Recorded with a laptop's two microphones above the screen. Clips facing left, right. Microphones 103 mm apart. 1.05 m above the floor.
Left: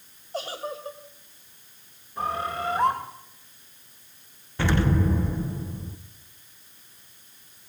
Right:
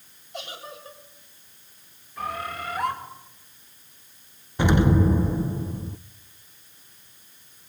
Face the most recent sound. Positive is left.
turn(degrees=-20)  # may be behind; listen again after turning